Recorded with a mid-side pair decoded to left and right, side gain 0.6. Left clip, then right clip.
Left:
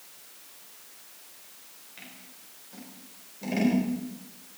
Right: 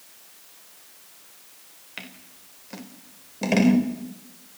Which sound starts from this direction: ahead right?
Scissors, at 2.0 s.